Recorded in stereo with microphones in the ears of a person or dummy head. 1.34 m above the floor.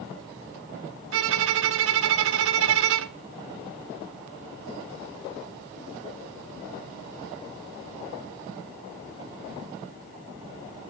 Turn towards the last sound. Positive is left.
turn(degrees=-80)